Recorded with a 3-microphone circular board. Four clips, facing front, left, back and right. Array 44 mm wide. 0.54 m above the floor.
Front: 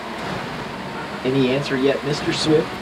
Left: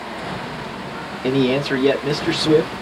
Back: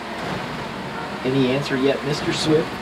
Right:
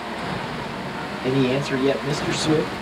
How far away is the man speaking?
About 0.8 m.